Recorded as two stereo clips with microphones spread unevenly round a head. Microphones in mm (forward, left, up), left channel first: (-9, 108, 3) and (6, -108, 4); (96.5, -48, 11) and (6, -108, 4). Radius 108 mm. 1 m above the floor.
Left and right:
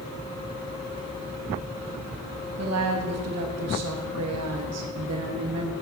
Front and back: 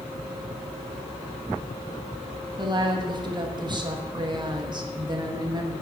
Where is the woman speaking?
100° right, 1.2 m.